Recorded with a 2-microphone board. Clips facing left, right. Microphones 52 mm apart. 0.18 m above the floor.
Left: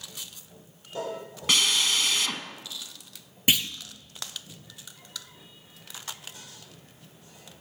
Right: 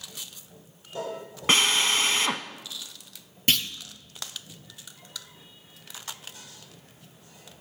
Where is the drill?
35° right (ahead or behind), 0.6 m.